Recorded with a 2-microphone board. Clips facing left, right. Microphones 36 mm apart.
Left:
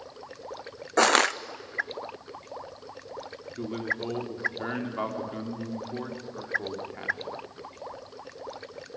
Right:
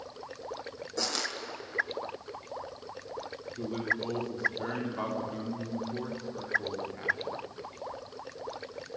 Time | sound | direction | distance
1.0 | crushing | 60° left (ahead or behind) | 0.6 m
3.6 | a man speaking | 25° left (ahead or behind) | 3 m